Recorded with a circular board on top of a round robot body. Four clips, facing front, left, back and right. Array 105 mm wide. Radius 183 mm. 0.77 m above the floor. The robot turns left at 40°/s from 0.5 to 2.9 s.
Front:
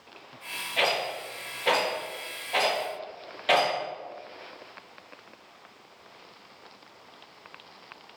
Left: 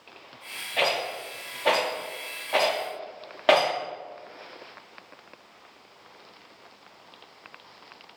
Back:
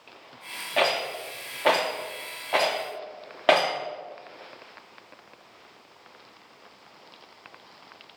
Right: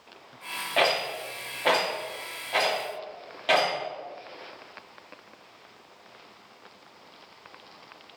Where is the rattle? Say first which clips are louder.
Right 2 dB, back 3 dB; 130° right, 0.6 m; by 3.8 s 145° left, 0.6 m.